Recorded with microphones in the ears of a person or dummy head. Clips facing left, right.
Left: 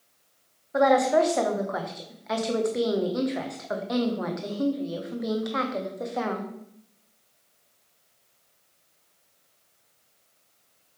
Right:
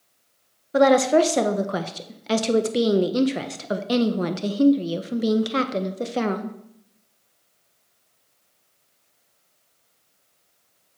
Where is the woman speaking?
35° right (ahead or behind), 0.5 m.